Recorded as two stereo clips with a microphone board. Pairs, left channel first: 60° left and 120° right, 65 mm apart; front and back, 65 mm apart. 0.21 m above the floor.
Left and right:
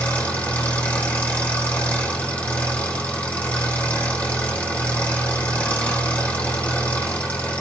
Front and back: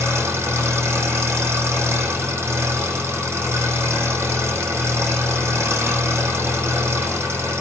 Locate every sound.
0.0 s an engine running: 135° left, 9.5 m